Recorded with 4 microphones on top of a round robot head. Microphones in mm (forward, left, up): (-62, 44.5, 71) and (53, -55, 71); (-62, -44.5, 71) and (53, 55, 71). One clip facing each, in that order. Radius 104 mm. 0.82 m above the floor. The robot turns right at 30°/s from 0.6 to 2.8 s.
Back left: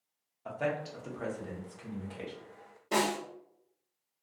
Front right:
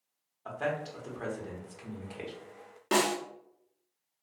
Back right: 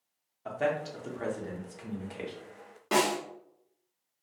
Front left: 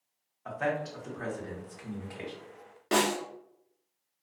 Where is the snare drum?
50° right, 1.2 m.